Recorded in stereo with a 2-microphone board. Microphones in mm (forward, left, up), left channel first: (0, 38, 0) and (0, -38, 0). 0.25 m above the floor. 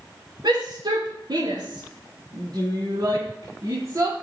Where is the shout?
70° right (ahead or behind), 4.5 m; by 4.1 s 45° right (ahead or behind), 2.5 m.